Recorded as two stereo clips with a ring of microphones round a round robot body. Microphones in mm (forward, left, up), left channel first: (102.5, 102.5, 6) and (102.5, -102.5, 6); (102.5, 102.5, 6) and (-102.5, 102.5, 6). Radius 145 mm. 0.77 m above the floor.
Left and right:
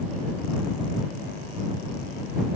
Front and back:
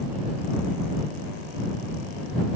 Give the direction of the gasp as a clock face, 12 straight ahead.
No gasp in this recording.